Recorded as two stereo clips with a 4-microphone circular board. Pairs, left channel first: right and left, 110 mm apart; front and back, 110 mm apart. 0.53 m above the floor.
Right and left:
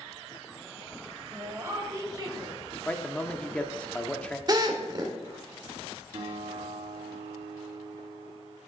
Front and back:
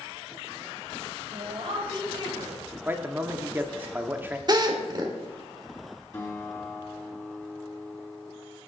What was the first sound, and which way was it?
A woman speaking, 160° left.